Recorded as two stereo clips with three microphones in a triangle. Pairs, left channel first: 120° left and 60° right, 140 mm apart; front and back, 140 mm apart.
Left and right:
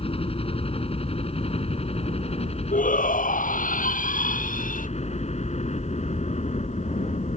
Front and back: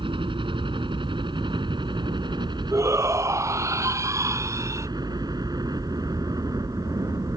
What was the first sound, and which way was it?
A helicopter, 145° left.